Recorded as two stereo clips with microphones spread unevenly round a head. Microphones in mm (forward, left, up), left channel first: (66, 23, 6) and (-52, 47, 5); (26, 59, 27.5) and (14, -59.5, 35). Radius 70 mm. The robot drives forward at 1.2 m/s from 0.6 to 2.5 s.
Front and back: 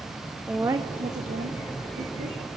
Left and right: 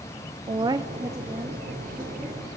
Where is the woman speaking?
120° right, 0.5 m; by 2.4 s 175° right, 2.5 m.